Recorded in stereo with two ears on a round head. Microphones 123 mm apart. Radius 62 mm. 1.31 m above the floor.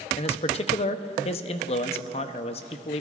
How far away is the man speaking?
About 0.6 m.